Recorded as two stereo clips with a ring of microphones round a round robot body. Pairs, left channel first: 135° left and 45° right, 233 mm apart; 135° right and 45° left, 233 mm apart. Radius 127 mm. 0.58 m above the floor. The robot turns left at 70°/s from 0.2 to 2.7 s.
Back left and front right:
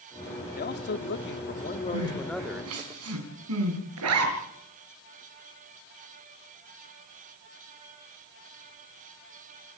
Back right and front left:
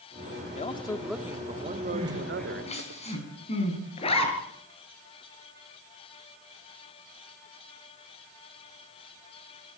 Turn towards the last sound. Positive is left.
turn(degrees=-70)